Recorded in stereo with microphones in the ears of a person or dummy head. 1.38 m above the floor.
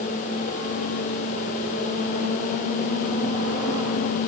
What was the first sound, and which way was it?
Only background noise.